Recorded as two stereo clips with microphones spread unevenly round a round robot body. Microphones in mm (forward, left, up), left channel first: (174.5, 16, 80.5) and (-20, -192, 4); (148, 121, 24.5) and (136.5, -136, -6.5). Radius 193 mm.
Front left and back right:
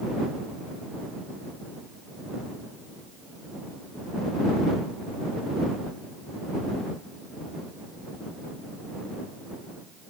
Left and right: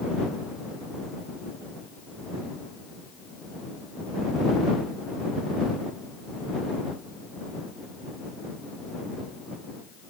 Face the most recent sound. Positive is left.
No sound to turn to.